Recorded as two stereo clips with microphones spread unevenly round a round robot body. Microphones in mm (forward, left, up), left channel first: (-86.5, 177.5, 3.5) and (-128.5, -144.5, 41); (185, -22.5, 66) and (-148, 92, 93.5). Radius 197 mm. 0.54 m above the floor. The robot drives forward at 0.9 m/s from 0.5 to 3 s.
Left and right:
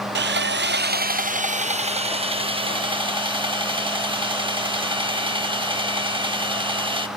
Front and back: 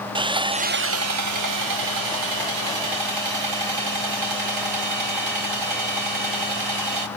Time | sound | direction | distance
0.1 | sawing | 125° right | 0.7 m